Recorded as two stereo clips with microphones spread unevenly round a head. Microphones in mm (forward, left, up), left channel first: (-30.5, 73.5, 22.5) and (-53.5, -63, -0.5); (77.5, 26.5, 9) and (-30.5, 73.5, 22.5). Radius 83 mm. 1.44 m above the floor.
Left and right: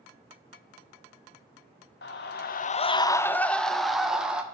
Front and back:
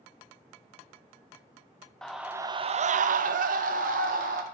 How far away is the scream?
About 0.6 m.